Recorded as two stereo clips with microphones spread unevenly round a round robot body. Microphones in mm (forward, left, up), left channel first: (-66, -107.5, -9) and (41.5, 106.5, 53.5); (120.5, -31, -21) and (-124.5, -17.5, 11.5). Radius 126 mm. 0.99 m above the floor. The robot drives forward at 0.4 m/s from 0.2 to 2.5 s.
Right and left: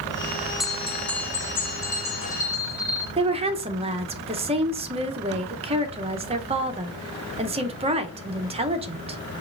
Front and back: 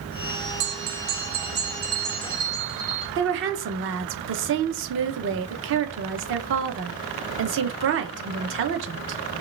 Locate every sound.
0.6 s a bell: 160° left, 0.7 m; by 3.1 s 170° left, 1.4 m
3.2 s a woman speaking: 135° left, 0.6 m